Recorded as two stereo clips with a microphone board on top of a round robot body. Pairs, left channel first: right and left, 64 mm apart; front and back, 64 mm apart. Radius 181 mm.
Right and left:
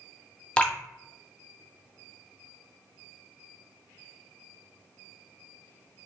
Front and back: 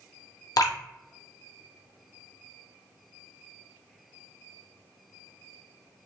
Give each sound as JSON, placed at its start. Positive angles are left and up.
{"t": 0.6, "sound": "dripping", "azimuth_deg": -20, "distance_m": 0.6}